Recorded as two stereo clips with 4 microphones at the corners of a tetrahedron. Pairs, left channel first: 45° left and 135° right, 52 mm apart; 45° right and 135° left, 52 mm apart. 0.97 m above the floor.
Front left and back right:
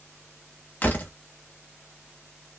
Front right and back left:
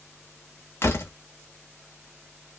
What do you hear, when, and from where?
0.8 s a door slam: 10° right, 1.1 m